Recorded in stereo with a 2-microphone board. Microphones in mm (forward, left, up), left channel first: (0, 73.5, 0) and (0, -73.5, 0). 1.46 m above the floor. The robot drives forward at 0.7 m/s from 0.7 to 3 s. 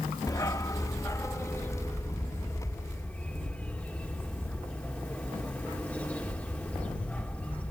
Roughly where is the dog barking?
Left.